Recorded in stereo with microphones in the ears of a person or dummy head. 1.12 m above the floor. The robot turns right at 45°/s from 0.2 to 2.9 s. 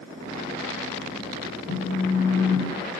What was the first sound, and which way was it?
A phone buzzing, 150° left.